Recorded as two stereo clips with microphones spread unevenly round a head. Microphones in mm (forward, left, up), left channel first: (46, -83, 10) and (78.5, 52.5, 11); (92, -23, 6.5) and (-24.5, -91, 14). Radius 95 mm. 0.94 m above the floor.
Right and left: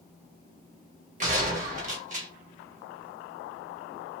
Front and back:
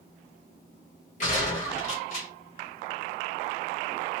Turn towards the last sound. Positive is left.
turn(degrees=65)